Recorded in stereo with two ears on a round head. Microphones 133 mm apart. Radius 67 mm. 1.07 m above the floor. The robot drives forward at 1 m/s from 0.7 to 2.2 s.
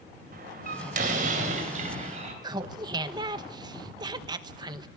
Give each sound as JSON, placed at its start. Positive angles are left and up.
{"t": 0.3, "sound": "a door slam", "side_deg": -65, "distance_m": 4.0}
{"t": 2.4, "sound": "laughter", "side_deg": -30, "distance_m": 1.1}